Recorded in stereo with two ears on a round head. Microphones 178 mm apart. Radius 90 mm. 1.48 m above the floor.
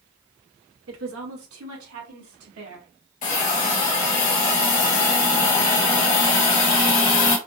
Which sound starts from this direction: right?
A woman speaking, at 0.9 s.